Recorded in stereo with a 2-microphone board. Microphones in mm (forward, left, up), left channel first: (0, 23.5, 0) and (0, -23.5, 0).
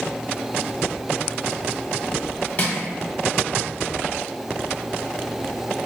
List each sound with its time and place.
2.6 s crushing: 35° left (ahead or behind), 1.0 m